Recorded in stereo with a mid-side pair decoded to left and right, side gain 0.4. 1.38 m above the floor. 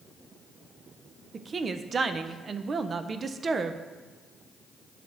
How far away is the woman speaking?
About 0.6 m.